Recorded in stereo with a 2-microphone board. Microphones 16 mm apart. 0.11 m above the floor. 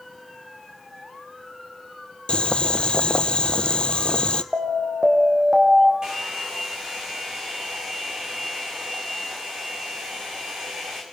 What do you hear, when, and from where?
2.3 s boiling: 70° left (ahead or behind), 0.9 m
4.5 s an alarm: 35° right (ahead or behind), 5 m
6.0 s a hair dryer: 50° right (ahead or behind), 5 m